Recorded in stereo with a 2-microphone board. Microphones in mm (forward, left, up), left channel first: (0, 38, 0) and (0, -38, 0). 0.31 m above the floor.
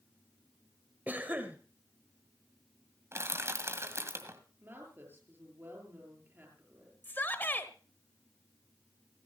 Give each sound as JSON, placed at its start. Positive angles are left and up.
{"t": 1.1, "sound": "a cough", "side_deg": -25, "distance_m": 1.1}
{"t": 3.1, "sound": "crushing", "side_deg": -35, "distance_m": 1.9}
{"t": 4.6, "sound": "a woman speaking", "side_deg": -30, "distance_m": 7.5}
{"t": 7.0, "sound": "a shout", "side_deg": 25, "distance_m": 1.2}